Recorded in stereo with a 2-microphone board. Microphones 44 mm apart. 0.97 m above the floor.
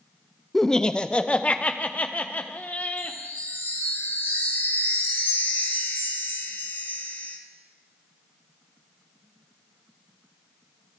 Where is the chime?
60° left (ahead or behind), 2.0 m.